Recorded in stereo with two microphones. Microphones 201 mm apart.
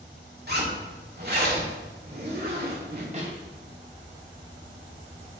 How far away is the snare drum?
About 1.9 m.